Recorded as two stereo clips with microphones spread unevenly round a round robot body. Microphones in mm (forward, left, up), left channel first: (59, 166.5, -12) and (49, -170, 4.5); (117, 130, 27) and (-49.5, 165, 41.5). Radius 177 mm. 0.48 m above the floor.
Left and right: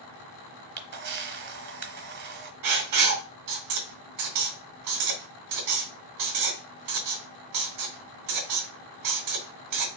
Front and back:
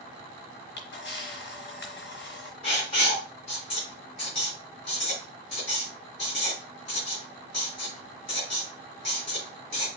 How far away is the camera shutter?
About 1.2 m.